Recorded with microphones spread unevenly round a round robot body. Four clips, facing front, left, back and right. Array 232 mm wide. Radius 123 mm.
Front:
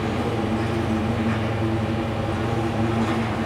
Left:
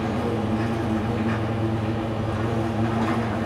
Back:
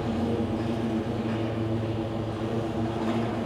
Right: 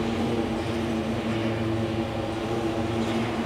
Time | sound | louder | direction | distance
0.0 | an insect | left 1 dB, front 3 dB | 75° left | 10 m